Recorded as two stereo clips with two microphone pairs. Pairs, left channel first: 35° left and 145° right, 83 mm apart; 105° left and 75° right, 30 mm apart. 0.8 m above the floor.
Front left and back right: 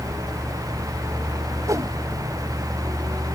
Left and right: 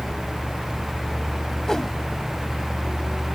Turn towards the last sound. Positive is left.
turn(degrees=175)